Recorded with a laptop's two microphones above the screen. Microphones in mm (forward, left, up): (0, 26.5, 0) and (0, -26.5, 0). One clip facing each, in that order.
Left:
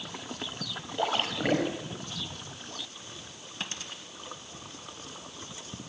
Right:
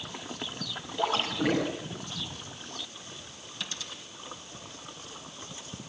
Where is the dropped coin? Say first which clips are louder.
Left 1 dB; 35° left (ahead or behind), 2 m.